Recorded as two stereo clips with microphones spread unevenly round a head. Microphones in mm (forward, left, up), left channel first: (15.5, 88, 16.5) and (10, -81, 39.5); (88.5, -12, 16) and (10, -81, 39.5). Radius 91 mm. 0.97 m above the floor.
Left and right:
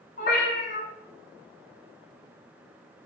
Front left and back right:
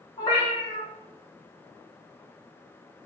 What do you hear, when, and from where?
0.2 s a cat meowing: 95° left, 1.0 m